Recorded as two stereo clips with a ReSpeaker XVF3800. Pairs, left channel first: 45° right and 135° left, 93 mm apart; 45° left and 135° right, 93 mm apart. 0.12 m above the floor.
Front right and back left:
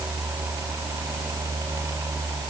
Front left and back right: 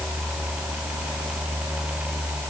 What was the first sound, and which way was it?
Only background noise.